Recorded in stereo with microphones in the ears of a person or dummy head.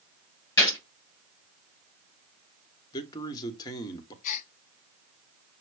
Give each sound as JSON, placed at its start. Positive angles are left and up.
{"t": 0.6, "sound": "a gunshot", "side_deg": 15, "distance_m": 2.5}
{"t": 2.9, "sound": "a man speaking", "side_deg": 25, "distance_m": 1.2}
{"t": 4.2, "sound": "a gasp", "side_deg": 45, "distance_m": 0.6}